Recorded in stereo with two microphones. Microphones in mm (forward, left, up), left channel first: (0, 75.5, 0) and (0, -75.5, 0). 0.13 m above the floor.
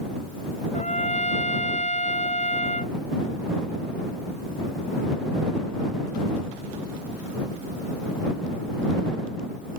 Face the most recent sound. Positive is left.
turn(degrees=50)  # may be behind; listen again after turning